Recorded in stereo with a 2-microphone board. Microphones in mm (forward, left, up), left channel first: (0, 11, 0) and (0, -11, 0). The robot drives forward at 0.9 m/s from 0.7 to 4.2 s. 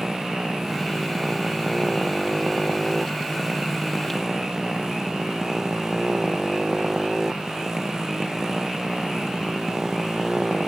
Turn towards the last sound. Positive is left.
turn(degrees=-20)  # may be behind; listen again after turning